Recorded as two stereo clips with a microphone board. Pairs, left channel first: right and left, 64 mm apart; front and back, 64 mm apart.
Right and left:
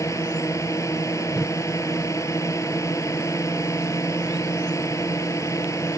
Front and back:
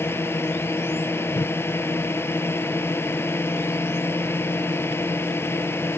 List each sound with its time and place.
0.0 s a drone: 50° right
1.3 s a whoosh: straight ahead